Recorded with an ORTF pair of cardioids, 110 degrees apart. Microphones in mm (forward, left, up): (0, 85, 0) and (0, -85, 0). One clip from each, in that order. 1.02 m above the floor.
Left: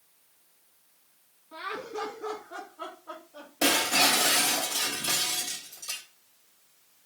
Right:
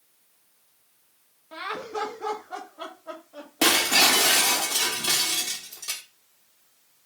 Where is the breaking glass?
40° right, 1.2 m.